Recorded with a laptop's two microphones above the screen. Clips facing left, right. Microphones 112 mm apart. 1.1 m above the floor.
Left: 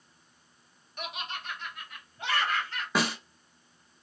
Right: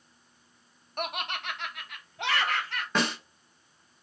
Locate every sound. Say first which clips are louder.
1.0 s laughter: right 5 dB; 55° right (ahead or behind), 0.7 m; by 2.9 s 75° right (ahead or behind), 1.3 m
3.0 s a snare drum: even; 5° left (ahead or behind), 0.8 m